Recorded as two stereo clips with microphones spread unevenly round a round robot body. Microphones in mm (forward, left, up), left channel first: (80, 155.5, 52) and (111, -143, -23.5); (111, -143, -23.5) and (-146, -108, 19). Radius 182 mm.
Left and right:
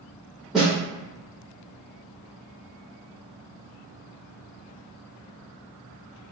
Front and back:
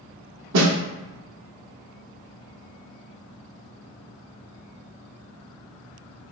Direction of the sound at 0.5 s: 170° right.